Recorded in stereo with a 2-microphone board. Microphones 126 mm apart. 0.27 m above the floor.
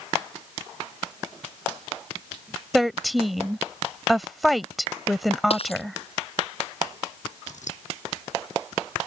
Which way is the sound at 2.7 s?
Centre (ahead or behind).